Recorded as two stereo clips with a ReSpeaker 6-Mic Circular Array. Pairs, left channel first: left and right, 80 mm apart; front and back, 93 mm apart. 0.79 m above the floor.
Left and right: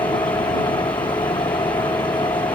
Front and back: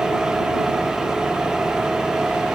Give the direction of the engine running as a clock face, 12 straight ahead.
9 o'clock.